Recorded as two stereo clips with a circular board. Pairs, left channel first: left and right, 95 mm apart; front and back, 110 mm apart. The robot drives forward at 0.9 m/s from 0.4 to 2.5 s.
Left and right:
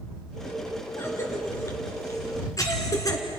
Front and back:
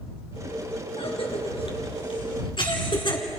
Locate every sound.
1.0 s a cough: 30° left, 4.5 m; by 3.2 s 40° left, 3.5 m